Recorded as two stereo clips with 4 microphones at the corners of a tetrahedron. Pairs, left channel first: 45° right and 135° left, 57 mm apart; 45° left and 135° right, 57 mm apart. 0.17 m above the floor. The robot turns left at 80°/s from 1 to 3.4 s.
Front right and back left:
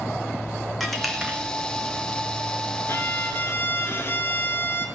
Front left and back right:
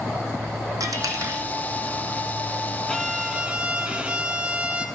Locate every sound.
0.8 s a dropped coin: 135° right, 1.2 m; by 1.5 s 170° right, 1.2 m
2.9 s a violin: 25° right, 1.0 m; by 4.9 s 70° right, 1.0 m